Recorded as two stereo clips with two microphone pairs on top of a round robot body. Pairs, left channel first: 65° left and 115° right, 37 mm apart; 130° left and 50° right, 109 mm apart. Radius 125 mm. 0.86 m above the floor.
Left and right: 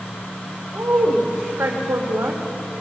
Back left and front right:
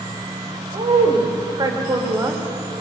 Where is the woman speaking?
90° right, 3.5 m; by 2.4 s 120° right, 2.5 m.